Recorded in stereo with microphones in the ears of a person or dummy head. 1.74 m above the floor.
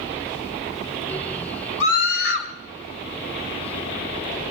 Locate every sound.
1.8 s a scream: 70° left (ahead or behind), 2 m